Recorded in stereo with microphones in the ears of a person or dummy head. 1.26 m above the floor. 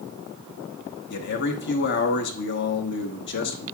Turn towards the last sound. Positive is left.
turn(degrees=55)  # may be behind; listen again after turning